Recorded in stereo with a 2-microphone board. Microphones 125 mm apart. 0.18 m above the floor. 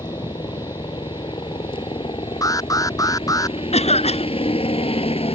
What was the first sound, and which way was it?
A helicopter, 35° left (ahead or behind).